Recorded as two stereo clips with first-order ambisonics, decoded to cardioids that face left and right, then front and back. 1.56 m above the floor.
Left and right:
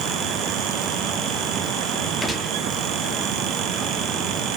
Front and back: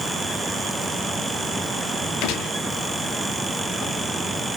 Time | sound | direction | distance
2.2 | a gunshot | 5° left | 0.7 m